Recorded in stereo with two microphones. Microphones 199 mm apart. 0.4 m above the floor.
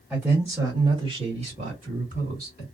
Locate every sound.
0.1 s a man speaking: centre (ahead or behind), 1.6 m; by 2.6 s 50° right (ahead or behind), 2 m